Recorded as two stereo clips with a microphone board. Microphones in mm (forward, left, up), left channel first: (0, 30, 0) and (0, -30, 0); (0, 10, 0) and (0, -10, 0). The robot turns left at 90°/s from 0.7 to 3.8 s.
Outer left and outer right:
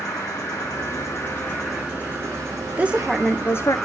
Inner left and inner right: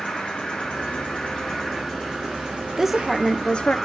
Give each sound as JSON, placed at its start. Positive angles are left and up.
{"t": 0.0, "sound": "an insect", "azimuth_deg": 95, "distance_m": 5.0}
{"t": 2.8, "sound": "a woman speaking", "azimuth_deg": -155, "distance_m": 0.7}